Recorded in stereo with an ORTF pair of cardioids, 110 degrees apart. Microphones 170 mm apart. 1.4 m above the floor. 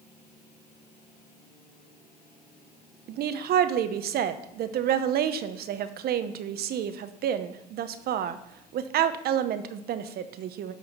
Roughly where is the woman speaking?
Ahead right.